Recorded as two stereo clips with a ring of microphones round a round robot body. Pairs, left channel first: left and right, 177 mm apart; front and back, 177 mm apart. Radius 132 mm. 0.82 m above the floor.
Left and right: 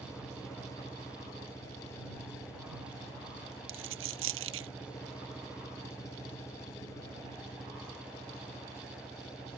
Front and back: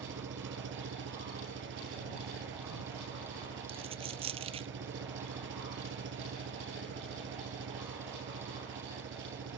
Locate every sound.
0.0 s an engine running: 170° left
3.7 s a dropped coin: 110° right